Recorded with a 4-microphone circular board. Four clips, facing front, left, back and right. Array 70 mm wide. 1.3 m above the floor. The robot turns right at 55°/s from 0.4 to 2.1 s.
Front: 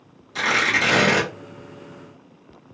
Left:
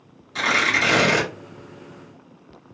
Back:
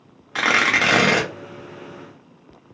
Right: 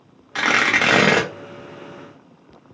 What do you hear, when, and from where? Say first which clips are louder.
0.3 s tearing paper: right 3 dB, back 2 dB; 145° right, 0.9 m; by 1.3 s 95° right, 0.9 m